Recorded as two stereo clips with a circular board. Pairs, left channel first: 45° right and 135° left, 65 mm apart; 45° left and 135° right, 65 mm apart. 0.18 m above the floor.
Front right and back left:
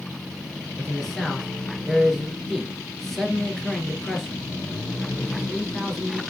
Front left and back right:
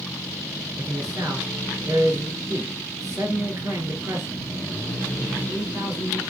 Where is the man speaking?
130° right, 2.5 m.